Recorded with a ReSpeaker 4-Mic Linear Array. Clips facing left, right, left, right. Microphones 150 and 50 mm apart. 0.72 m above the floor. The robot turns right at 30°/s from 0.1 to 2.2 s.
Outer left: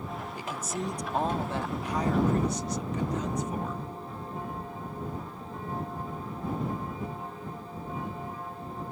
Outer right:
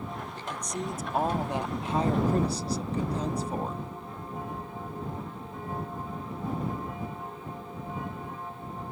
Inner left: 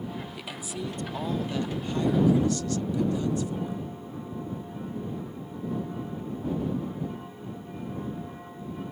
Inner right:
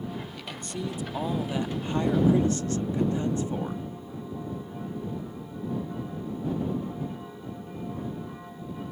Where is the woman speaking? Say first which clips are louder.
Outer left 1 dB, even; 165° left; by 3.8 s 140° right.